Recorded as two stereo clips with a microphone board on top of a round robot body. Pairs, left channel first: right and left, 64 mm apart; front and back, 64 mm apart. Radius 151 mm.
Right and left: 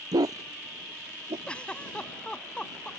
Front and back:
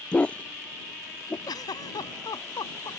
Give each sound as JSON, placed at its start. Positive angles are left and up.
{"t": 0.1, "sound": "a dog barking", "azimuth_deg": 75}
{"t": 1.5, "sound": "a giggle", "azimuth_deg": -15}